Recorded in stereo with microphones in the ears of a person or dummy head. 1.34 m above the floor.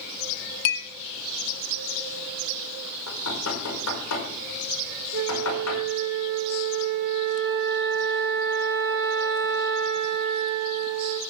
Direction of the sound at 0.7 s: 60° left (ahead or behind).